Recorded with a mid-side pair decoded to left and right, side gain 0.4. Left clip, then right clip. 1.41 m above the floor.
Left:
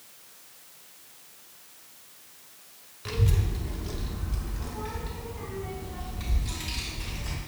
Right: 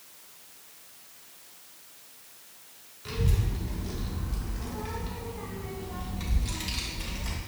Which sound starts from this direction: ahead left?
A child speaking, at 3.0 s.